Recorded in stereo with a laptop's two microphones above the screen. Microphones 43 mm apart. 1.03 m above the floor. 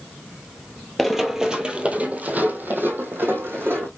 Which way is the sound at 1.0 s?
Centre (ahead or behind).